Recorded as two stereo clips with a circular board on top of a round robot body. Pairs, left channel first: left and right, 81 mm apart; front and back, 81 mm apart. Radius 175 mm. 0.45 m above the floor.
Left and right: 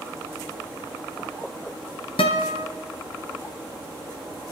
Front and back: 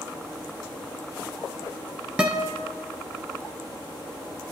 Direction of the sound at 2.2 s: 100° left.